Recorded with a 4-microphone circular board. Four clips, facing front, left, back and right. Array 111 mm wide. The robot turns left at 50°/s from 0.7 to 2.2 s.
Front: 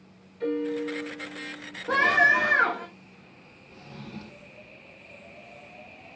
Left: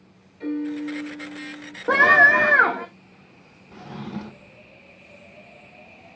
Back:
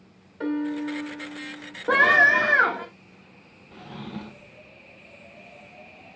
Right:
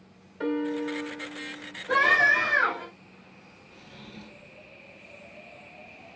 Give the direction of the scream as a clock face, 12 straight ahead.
8 o'clock.